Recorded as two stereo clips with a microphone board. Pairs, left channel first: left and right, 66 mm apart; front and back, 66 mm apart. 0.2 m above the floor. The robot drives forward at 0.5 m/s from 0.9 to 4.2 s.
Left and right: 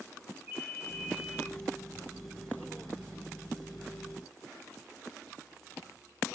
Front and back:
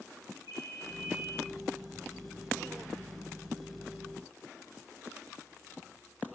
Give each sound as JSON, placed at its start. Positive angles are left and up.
{"t": 0.5, "sound": "a ringtone", "azimuth_deg": -160, "distance_m": 3.0}